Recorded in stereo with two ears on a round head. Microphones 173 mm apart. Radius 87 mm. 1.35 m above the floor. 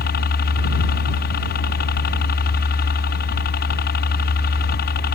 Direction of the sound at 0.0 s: 55° left (ahead or behind).